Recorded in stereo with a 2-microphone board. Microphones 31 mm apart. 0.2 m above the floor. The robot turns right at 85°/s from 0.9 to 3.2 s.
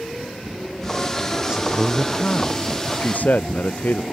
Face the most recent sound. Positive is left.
turn(degrees=115)